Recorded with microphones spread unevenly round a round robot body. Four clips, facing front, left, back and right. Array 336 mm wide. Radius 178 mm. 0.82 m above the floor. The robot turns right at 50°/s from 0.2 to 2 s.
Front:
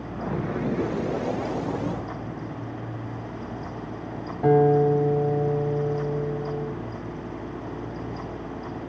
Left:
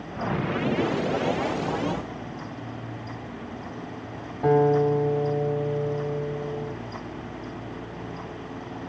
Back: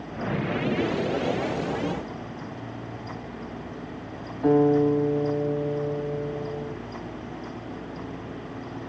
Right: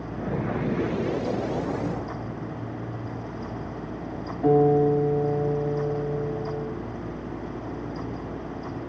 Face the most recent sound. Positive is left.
turn(degrees=20)